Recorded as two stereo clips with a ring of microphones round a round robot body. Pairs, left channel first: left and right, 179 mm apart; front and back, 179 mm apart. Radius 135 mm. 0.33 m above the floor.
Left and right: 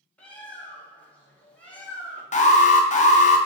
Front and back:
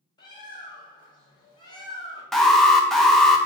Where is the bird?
15° left, 1.2 m.